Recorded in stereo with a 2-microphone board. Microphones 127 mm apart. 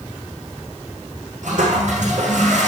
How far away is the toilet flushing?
About 6 m.